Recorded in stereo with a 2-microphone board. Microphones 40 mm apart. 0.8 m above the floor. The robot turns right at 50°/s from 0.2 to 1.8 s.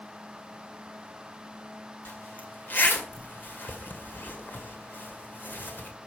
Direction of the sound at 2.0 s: 55° left (ahead or behind).